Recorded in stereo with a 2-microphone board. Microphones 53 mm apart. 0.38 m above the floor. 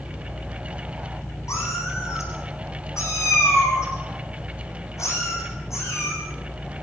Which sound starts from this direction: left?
A cat meowing, at 1.5 s.